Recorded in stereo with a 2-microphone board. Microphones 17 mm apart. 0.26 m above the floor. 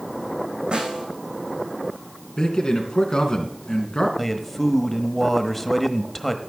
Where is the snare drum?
85° right, 5 m.